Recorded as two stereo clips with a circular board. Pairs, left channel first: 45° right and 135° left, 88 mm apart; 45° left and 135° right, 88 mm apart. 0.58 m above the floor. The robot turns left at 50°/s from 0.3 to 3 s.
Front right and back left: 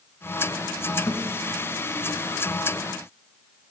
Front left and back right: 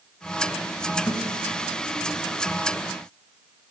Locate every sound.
1.1 s a thud: 5° left, 1.2 m; by 1.2 s straight ahead, 1.2 m